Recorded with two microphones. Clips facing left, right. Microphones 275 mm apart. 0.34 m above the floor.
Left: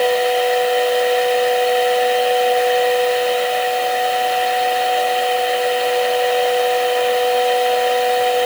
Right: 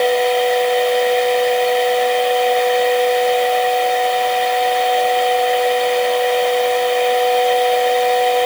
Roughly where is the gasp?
I don't hear a gasp.